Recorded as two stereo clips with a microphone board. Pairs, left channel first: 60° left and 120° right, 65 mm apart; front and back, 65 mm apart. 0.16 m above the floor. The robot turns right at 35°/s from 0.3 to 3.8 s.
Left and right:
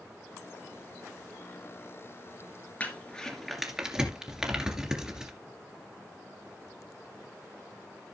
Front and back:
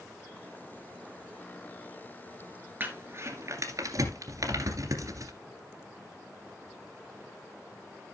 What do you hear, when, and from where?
2.8 s crumpling: 125° left, 2 m; by 5.3 s 160° left, 2 m